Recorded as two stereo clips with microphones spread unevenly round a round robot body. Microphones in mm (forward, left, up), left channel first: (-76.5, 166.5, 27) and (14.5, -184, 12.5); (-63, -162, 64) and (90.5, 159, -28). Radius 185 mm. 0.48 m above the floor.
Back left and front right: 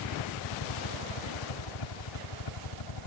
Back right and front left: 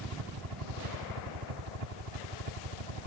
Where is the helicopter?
75° left.